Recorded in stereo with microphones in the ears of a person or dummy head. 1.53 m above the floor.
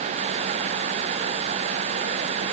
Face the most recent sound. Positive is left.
No sound to turn to.